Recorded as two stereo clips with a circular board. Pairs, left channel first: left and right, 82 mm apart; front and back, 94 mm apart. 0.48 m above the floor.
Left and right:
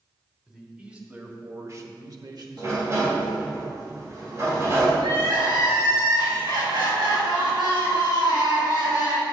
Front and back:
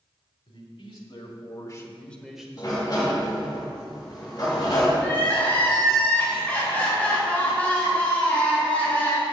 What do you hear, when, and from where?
0.5 s a man speaking: 10° right, 2.5 m; by 3.6 s 140° right, 2.5 m
2.6 s a sliding door: 40° right, 3 m
5.0 s crying: 75° right, 3.5 m